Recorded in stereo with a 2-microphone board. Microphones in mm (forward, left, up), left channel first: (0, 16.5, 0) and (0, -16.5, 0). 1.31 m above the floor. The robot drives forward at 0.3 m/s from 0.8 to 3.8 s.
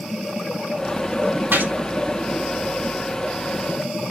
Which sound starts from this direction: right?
A gunshot, at 1.5 s.